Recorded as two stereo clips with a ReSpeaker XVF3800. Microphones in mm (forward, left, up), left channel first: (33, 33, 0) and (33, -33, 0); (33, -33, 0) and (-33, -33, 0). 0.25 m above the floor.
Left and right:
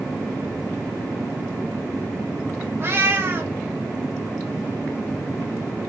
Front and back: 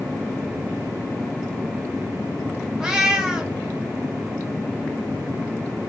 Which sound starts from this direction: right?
A cat meowing, at 2.8 s.